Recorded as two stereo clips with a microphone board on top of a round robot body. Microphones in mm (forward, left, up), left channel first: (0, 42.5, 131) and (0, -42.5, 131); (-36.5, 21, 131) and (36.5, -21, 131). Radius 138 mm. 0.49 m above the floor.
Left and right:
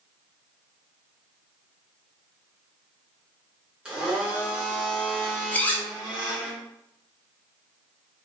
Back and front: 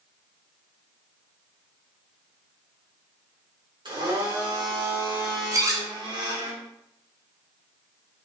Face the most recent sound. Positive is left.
turn(degrees=20)